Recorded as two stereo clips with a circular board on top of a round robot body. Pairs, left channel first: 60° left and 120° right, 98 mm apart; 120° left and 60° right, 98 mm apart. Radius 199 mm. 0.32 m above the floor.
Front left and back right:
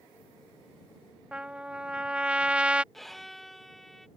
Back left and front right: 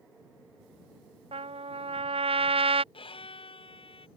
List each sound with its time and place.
1.3 s a trumpet: 40° right
2.9 s a violin: 150° left